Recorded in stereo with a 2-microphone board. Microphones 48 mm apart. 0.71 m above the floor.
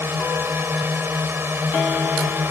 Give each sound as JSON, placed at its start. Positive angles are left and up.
{"t": 0.0, "sound": "a drone", "side_deg": -55}